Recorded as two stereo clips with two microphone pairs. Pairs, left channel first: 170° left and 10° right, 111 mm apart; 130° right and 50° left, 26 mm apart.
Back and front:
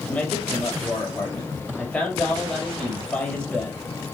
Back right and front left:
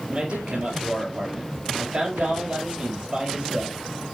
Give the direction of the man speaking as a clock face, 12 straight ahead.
9 o'clock.